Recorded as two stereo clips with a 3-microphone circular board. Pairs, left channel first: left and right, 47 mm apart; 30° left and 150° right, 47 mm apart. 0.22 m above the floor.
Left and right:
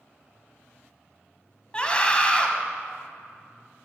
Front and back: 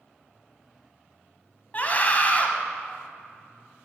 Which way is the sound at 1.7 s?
40° left.